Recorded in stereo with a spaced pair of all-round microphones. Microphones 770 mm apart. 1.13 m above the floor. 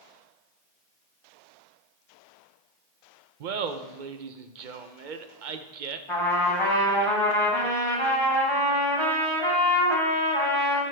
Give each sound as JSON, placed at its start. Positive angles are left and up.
{"t": 3.4, "sound": "laughter", "side_deg": -80, "distance_m": 0.9}
{"t": 6.1, "sound": "a trumpet", "side_deg": 40, "distance_m": 2.0}